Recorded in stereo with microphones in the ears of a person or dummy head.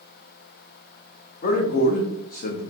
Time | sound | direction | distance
1.4 | a man speaking | 45° left (ahead or behind) | 0.7 m